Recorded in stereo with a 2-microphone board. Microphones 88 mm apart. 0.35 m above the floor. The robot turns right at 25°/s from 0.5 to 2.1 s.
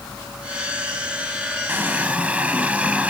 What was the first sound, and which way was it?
A running tap, 25° right (ahead or behind).